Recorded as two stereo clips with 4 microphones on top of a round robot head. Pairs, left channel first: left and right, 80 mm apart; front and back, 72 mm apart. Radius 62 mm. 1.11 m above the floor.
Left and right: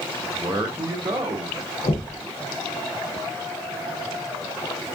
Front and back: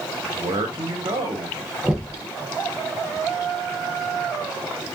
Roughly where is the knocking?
Left.